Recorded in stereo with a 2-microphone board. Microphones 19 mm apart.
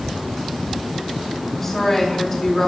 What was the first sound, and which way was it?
A woman speaking, 15° left (ahead or behind).